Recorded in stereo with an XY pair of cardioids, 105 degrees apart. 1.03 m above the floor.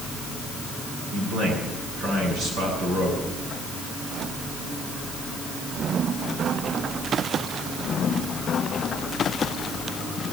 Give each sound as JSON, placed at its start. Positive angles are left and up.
{"t": 1.1, "sound": "a man speaking", "azimuth_deg": -70, "distance_m": 8.5}